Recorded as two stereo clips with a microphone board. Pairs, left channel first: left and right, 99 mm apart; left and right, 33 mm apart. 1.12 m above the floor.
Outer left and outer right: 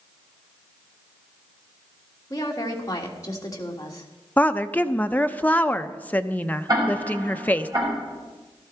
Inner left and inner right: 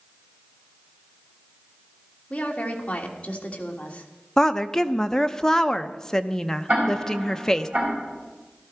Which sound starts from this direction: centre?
A woman speaking, at 4.4 s.